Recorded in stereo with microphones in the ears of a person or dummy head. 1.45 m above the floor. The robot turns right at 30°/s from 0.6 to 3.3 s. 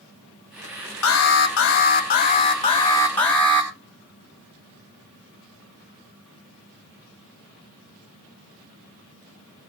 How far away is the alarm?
About 2.5 m.